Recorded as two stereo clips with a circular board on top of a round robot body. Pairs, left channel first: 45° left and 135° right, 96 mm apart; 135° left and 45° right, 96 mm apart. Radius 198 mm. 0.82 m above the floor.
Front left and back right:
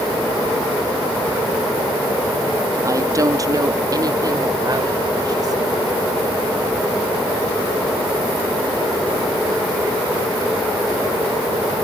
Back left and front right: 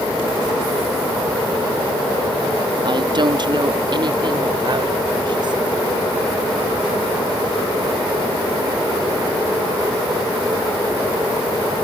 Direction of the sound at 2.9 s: 80° right.